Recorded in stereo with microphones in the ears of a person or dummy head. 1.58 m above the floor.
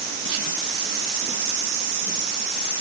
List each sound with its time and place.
Only background noise.